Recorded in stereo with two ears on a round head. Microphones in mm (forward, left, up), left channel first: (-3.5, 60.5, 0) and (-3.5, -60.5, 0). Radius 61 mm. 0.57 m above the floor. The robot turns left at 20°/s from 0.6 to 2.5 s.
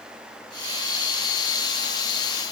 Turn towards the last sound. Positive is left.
No sound to turn to.